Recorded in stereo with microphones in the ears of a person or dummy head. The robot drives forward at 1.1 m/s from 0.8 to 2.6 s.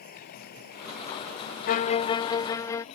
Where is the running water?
50° left (ahead or behind); by 3.0 s 40° left (ahead or behind).